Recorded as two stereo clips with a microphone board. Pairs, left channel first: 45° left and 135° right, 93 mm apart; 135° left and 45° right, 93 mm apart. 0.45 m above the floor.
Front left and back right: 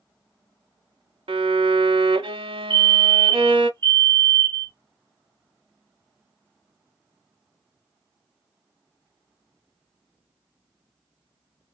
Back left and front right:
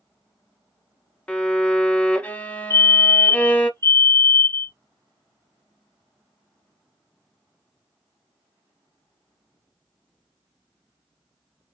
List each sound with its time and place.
1.3 s a violin: 150° right, 0.7 m
2.7 s a fire alarm: 90° left, 2.5 m